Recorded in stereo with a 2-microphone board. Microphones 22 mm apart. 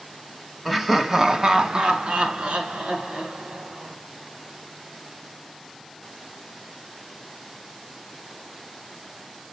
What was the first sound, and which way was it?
Laughter, 5° right (ahead or behind).